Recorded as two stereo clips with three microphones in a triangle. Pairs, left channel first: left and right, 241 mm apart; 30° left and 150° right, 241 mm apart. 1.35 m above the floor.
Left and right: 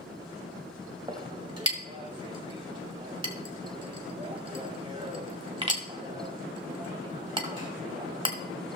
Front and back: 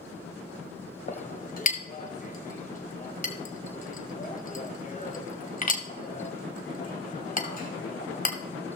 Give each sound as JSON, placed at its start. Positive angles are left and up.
{"t": 1.1, "sound": "a clink", "azimuth_deg": -25, "distance_m": 1.2}